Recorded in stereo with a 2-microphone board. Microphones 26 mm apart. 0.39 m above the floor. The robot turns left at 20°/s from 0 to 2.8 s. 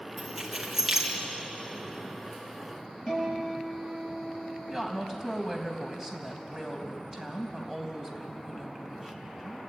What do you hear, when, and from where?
0.2 s keys jangling: 5° left (ahead or behind), 4 m; by 1.1 s 15° right (ahead or behind), 4 m
3.1 s a guitar: centre (ahead or behind), 9 m
4.7 s a woman speaking: 15° right (ahead or behind), 3 m